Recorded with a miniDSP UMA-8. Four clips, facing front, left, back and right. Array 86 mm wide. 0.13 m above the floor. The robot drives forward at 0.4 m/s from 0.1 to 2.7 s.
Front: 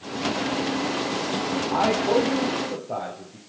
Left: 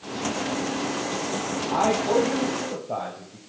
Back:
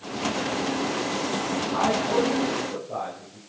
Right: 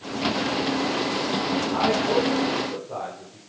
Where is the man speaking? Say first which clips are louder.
Left 2 dB, front 3 dB; 50° left, 3 m; by 3.4 s 55° left, 2.5 m.